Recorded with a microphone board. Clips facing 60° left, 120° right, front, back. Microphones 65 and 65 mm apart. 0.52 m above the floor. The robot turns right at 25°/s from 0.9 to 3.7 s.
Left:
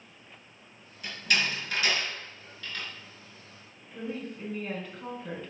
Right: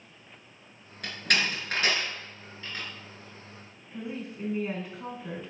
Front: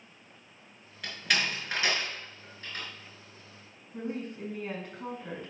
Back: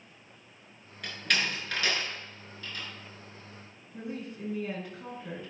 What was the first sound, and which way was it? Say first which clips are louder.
A door slam: right 1 dB, even; 90° right.